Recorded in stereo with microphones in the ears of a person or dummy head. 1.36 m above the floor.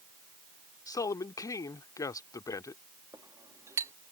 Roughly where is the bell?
No bell in this recording.